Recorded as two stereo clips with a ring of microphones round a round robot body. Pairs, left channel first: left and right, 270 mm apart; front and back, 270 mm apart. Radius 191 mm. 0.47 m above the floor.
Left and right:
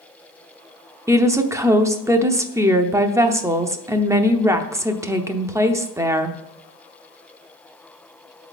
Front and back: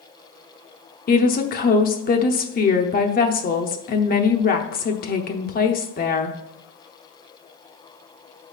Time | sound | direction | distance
1.1 | a woman speaking | 20° right | 0.8 m